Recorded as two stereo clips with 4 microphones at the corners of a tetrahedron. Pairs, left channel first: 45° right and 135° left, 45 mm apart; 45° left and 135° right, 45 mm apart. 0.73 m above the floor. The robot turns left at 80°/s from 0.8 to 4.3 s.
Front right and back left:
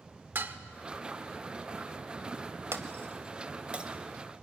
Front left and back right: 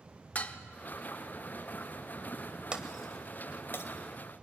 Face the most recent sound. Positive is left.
turn(degrees=30)